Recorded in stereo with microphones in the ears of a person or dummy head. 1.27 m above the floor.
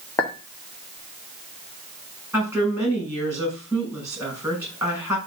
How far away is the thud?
No thud in this recording.